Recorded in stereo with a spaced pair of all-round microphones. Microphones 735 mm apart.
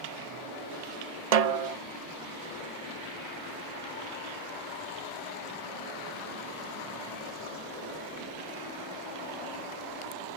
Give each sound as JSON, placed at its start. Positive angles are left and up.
{"t": 1.3, "sound": "a snare drum", "side_deg": -60}